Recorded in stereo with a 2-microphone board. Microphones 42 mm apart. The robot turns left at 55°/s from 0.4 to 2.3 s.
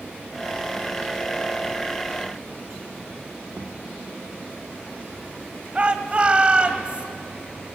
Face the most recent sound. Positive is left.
turn(degrees=-30)  # may be behind; listen again after turning